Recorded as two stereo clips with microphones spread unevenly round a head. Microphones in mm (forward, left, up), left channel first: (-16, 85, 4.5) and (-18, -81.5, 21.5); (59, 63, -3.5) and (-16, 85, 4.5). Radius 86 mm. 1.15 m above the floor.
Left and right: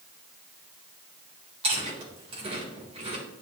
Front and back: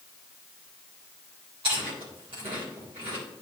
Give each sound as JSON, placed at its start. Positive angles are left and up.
{"t": 1.6, "sound": "chewing", "azimuth_deg": -145, "distance_m": 3.0}